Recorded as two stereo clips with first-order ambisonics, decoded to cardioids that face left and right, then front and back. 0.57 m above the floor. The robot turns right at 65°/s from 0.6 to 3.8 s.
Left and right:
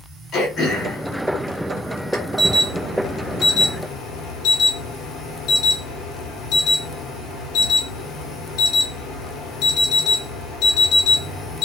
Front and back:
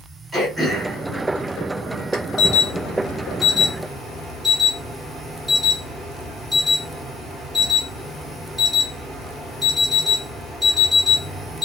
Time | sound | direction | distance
0.3 | throat clearing | 100° left | 1.1 m
2.4 | an alarm | 5° right | 1.1 m